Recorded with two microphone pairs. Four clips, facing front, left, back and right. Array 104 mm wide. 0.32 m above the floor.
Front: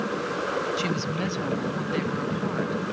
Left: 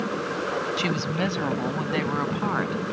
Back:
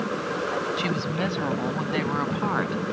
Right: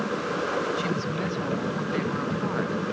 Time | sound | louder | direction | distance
0.8 | a woman speaking | left 2 dB, back 1 dB | 115° left | ?